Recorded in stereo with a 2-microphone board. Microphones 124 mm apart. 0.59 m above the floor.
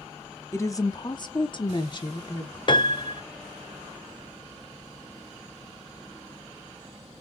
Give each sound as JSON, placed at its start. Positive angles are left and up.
{"t": 0.5, "sound": "a woman speaking", "side_deg": 20, "distance_m": 0.7}
{"t": 2.7, "sound": "a piano", "side_deg": 40, "distance_m": 0.5}